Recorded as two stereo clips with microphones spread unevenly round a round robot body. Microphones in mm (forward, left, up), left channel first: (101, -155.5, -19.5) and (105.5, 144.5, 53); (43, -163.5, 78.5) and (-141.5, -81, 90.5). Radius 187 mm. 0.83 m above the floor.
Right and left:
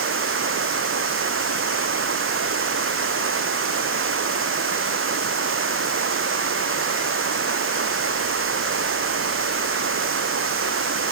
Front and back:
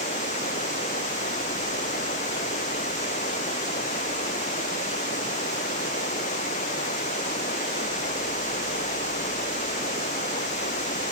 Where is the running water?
45° left.